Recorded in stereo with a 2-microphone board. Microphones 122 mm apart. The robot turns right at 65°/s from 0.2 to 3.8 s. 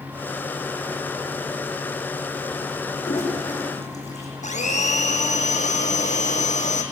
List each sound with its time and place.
3.0 s a toilet flushing: 60° left (ahead or behind), 7 m; by 4.3 s 65° left (ahead or behind), 7 m
4.4 s a blender: 75° left (ahead or behind), 2 m